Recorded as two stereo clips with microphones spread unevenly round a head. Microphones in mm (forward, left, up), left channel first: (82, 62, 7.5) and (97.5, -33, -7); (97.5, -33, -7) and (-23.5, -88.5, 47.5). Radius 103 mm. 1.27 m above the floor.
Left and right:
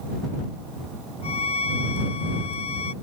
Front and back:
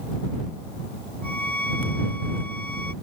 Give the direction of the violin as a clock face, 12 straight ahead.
8 o'clock.